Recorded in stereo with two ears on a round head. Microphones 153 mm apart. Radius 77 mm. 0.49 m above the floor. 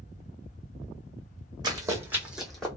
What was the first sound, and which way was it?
Running footsteps, 25° right (ahead or behind).